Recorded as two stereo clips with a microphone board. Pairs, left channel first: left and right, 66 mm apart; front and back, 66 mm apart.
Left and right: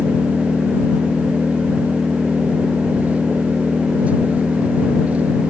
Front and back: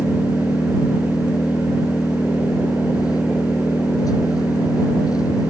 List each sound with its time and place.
0.0 s an engine running: 20° right